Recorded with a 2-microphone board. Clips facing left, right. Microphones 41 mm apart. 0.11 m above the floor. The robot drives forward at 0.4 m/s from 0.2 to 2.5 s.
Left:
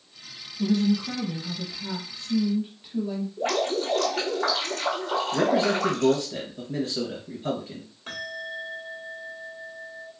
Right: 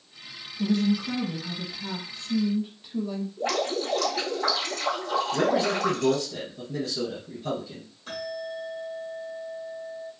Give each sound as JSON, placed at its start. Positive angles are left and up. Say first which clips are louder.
{"t": 0.6, "sound": "a woman speaking", "louder": "left 1 dB", "side_deg": 10, "distance_m": 1.2}
{"t": 3.4, "sound": "dripping", "louder": "left 2 dB", "side_deg": 60, "distance_m": 2.0}
{"t": 5.3, "sound": "a man speaking", "louder": "left 2 dB", "side_deg": 45, "distance_m": 2.0}
{"t": 8.1, "sound": "a bell", "louder": "right 1 dB", "side_deg": 55, "distance_m": 2.5}